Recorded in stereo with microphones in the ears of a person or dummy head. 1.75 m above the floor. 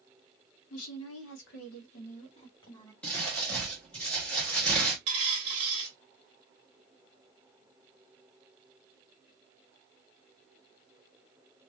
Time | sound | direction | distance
0.7 | a woman speaking | 70° left (ahead or behind) | 1.3 m
3.0 | crumpling | 5° left (ahead or behind) | 1.1 m
5.1 | a dropped coin | 25° right (ahead or behind) | 1.1 m